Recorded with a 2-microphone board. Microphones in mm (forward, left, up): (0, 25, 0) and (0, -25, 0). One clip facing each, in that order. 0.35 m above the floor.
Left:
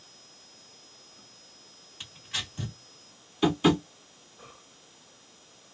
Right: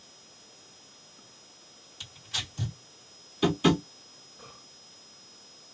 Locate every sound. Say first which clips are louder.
2.0 s tearing paper: left 1 dB; 25° left (ahead or behind), 1.8 m
3.4 s tapping: left 1 dB; 10° left (ahead or behind), 1.3 m